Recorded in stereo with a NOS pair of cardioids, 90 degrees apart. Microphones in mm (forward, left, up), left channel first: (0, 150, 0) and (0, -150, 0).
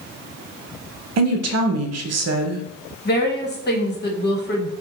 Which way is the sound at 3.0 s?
35° left.